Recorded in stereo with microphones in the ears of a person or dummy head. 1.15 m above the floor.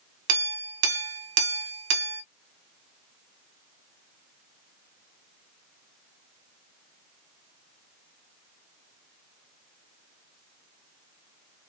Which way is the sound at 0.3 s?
65° right (ahead or behind).